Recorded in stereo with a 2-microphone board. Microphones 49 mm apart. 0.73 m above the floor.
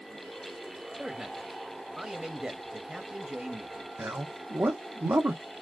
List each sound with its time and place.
1.0 s a man speaking: 10° right (ahead or behind), 0.8 m
4.0 s a man speaking: 55° right (ahead or behind), 0.8 m